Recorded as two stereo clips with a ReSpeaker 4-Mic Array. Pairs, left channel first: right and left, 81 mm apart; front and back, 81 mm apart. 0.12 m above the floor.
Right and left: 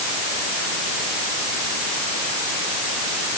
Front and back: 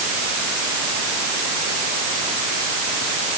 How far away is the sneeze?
No sneeze in this recording.